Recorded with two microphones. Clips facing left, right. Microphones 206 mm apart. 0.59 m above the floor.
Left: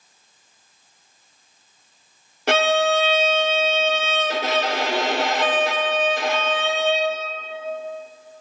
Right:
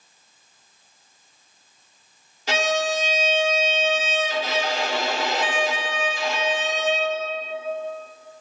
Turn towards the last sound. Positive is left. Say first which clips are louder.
# left 5 dB
turn(degrees=55)  # may be behind; listen again after turning